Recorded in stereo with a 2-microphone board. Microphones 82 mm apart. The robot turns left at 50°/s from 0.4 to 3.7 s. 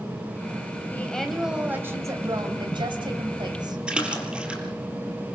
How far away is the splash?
About 4 m.